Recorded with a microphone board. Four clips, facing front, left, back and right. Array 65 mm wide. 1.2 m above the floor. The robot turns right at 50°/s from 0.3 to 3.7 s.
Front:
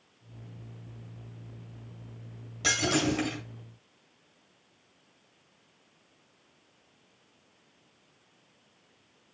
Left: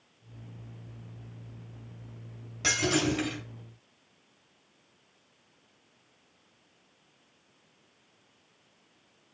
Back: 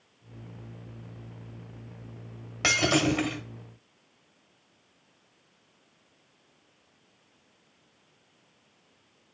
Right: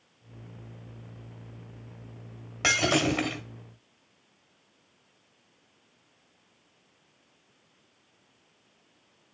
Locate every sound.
2.6 s breaking glass: 140° right, 1.9 m; by 3.4 s 105° right, 1.9 m